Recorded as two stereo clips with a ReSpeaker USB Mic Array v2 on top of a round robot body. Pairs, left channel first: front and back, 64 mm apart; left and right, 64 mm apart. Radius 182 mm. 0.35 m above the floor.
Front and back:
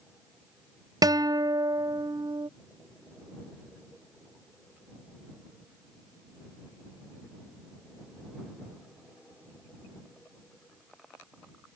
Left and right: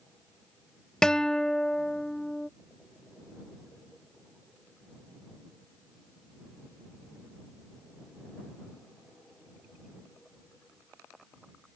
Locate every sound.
1.0 s a guitar: 170° left